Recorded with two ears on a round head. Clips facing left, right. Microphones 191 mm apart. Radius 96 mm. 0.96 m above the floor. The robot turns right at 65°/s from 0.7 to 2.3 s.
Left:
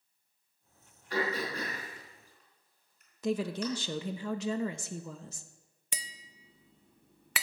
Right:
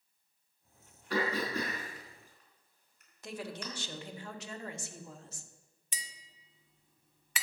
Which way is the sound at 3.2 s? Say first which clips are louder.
Left 10 dB; 65° left (ahead or behind).